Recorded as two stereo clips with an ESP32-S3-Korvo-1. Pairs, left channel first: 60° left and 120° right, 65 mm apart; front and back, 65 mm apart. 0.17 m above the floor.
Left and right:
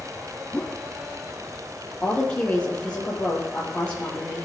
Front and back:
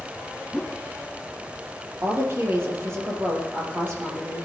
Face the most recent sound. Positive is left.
turn(degrees=130)